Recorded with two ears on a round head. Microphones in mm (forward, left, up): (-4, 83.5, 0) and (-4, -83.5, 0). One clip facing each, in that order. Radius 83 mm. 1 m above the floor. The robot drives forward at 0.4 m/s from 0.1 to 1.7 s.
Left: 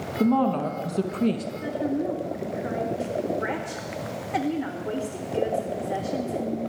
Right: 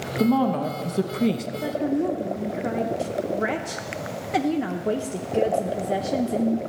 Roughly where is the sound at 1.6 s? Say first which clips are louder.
Right 3 dB; right.